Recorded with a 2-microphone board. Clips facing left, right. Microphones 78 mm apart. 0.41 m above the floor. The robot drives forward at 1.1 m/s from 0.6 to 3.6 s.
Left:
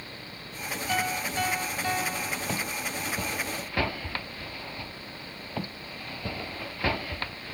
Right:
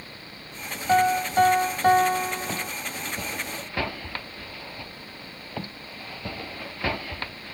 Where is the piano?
45° right (ahead or behind); by 2.7 s 55° right (ahead or behind).